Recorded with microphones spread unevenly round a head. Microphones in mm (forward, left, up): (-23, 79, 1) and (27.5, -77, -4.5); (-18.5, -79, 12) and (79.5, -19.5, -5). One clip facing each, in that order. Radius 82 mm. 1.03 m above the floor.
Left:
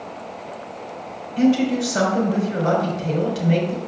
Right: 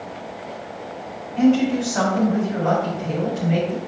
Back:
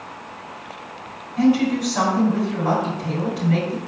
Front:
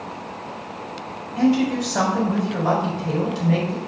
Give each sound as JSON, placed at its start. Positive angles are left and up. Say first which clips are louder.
{"t": 1.4, "sound": "a woman speaking", "louder": "right 1 dB, back 1 dB", "azimuth_deg": 65, "distance_m": 4.0}